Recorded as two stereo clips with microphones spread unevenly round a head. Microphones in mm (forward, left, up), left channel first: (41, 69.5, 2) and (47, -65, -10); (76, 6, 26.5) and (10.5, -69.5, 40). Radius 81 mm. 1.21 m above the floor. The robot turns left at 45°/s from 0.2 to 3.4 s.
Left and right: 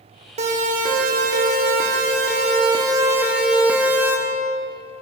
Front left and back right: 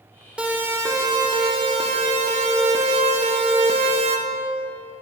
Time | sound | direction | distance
0.4 | a siren | 50° right | 5.5 m